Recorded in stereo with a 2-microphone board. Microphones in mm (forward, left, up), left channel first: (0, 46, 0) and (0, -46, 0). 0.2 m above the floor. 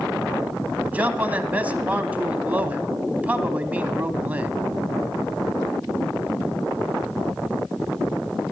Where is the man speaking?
20° right (ahead or behind), 1.0 m.